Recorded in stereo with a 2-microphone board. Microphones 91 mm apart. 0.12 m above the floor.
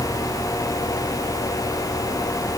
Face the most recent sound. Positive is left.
No sound to turn to.